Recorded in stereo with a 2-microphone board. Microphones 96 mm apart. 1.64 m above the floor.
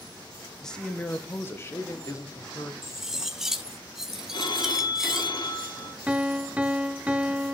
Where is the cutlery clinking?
5° right (ahead or behind), 0.8 m.